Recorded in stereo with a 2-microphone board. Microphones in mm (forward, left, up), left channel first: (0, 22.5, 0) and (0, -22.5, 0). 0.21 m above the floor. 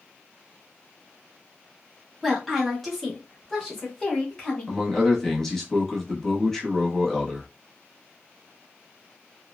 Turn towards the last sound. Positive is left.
turn(degrees=10)  # may be behind; listen again after turning